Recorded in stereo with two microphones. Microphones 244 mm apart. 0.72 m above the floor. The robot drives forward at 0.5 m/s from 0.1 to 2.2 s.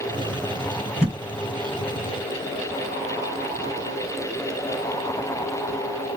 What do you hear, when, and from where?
1.0 s a thud: 10° left (ahead or behind), 3 m